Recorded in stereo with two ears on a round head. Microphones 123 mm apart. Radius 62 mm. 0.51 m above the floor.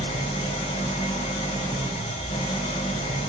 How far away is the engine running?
About 1.3 m.